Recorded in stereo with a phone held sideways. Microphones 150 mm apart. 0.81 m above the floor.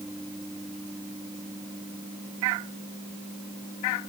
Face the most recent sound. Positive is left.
No sound to turn to.